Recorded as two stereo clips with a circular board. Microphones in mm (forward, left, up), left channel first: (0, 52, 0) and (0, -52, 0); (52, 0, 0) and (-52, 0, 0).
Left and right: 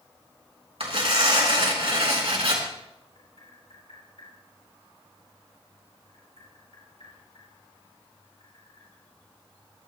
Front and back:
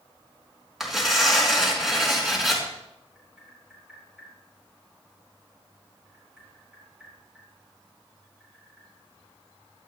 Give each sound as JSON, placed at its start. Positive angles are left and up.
{"t": 0.8, "sound": "tearing paper", "azimuth_deg": -95, "distance_m": 3.5}
{"t": 3.1, "sound": "tapping", "azimuth_deg": 100, "distance_m": 5.5}